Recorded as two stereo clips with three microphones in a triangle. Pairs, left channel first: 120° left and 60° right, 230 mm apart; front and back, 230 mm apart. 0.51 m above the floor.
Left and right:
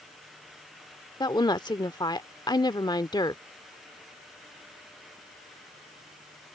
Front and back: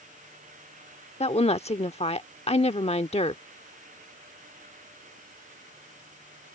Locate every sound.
1.2 s a woman speaking: 55° left